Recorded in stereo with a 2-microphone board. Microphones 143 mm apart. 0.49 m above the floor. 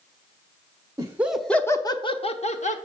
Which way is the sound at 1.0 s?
20° right (ahead or behind).